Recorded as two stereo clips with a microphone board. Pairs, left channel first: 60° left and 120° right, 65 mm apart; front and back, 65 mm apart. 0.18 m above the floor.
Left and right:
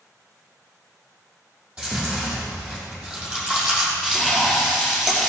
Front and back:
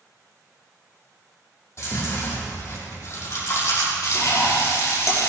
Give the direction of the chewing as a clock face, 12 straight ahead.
2 o'clock.